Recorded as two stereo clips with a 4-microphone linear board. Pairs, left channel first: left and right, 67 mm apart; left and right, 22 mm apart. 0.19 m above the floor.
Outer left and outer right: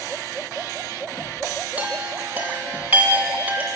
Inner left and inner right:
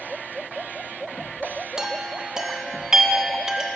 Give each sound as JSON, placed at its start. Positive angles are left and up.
{"t": 1.8, "sound": "a chime", "side_deg": -20, "distance_m": 0.8}